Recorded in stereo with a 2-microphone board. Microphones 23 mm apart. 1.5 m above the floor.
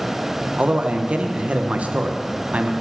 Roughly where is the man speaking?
Right.